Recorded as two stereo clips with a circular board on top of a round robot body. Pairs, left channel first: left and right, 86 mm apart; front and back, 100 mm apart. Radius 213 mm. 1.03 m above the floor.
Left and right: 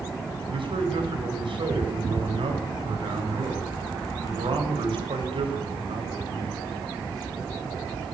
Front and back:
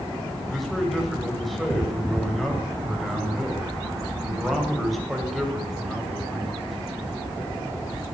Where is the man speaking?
90° right, 8.5 m.